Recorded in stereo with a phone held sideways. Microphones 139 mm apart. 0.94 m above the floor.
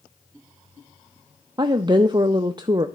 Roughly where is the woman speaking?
Right.